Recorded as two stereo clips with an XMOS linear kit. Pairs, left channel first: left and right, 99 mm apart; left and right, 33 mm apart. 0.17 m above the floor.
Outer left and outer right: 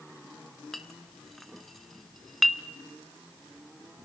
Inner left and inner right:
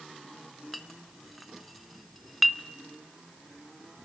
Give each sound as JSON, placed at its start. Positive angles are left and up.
{"t": 0.7, "sound": "a clink", "side_deg": 0, "distance_m": 1.2}